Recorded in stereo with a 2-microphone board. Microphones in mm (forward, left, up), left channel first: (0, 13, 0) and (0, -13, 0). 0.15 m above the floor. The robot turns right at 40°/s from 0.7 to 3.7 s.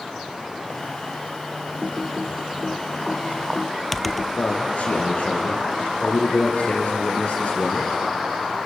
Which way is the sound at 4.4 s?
65° left (ahead or behind).